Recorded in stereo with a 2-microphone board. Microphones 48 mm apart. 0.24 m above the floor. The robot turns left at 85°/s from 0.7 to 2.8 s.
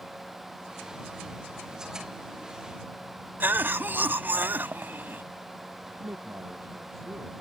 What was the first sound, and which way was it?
A cough, 45° right (ahead or behind).